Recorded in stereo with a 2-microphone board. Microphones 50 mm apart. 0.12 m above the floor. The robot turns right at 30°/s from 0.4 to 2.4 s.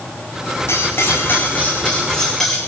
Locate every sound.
0.7 s cutlery clinking: 120° left, 5 m; by 2.6 s 170° left, 5 m